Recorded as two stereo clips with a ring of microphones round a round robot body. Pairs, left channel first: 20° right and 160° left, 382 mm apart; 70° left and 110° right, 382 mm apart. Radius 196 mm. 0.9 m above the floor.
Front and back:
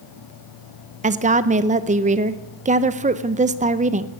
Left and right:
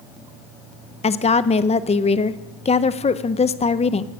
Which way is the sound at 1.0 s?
115° left.